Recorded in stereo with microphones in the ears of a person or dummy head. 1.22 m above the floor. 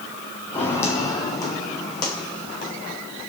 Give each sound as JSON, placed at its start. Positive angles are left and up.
{"t": 0.5, "sound": "footsteps", "side_deg": 15, "distance_m": 3.0}